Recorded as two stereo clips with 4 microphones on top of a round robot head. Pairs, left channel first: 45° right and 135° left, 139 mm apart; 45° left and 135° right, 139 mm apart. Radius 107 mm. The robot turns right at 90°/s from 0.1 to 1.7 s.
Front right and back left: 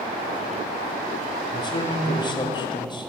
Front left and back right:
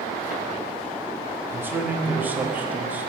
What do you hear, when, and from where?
1.5 s a man speaking: 85° right, 0.9 m; by 3.1 s 65° right, 0.9 m